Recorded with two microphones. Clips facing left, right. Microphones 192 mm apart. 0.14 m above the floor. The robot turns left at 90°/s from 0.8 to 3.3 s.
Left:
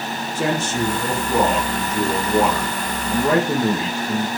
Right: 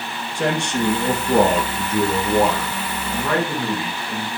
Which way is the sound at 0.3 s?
5° left.